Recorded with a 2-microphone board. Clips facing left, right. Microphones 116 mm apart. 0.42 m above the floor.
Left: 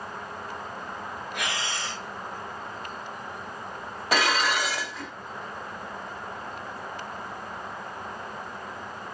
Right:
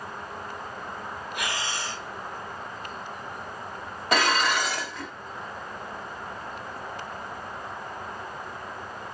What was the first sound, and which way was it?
Breathing, 60° left (ahead or behind).